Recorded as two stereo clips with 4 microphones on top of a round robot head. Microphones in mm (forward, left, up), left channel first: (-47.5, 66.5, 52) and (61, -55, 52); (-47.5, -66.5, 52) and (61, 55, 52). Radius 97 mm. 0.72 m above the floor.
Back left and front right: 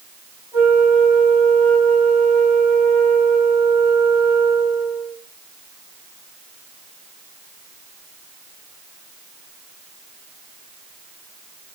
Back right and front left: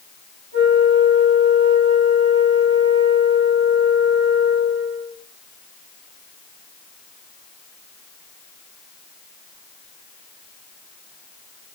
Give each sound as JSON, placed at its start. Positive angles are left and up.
{"t": 0.5, "sound": "a flute", "azimuth_deg": 30, "distance_m": 4.0}